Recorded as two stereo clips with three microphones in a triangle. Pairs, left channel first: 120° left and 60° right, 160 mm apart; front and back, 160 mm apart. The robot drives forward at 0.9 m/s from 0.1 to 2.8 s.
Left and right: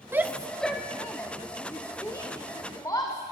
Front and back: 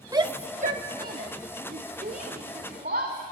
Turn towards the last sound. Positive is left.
turn(degrees=-175)